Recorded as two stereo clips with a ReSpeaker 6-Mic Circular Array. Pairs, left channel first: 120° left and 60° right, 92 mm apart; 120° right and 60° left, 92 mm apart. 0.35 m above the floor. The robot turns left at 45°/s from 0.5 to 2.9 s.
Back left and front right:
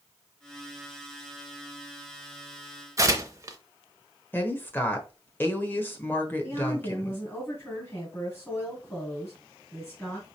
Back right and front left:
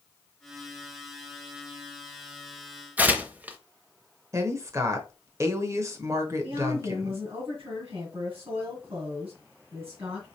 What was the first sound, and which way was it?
Tearing paper, 10° right.